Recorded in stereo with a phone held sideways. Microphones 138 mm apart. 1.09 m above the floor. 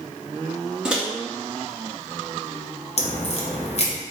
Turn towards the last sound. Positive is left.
turn(degrees=50)  # may be behind; listen again after turning